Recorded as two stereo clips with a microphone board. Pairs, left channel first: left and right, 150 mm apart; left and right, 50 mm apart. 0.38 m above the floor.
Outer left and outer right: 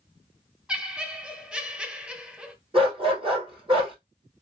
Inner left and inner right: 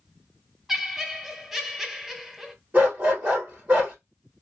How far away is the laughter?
About 1.1 m.